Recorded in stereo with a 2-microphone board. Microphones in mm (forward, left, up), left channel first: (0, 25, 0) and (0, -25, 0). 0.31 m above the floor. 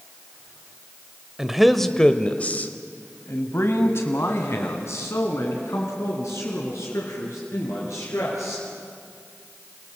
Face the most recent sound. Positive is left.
turn(degrees=80)